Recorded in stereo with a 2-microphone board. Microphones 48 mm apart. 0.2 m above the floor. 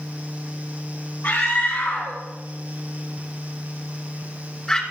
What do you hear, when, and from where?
1.2 s a scream: 55° left (ahead or behind), 6 m; by 4.8 s 15° left (ahead or behind), 2.5 m